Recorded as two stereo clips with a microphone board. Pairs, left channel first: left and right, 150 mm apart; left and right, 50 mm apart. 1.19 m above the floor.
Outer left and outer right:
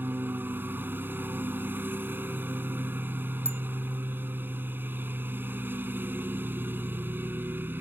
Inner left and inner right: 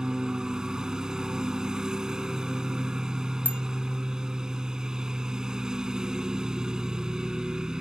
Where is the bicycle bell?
45° left (ahead or behind).